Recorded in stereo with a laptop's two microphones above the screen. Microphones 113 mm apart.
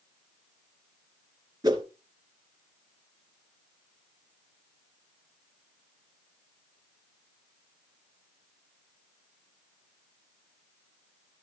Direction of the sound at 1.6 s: 35° right (ahead or behind).